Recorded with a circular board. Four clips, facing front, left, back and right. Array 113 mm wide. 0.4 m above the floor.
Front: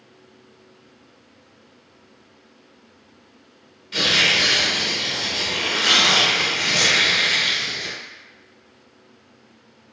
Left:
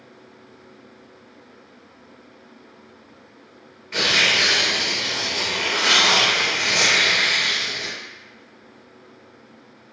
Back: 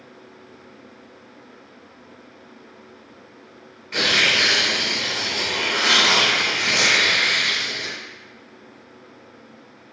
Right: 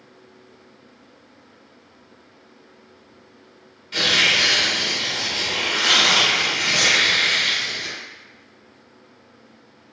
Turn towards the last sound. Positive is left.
turn(degrees=145)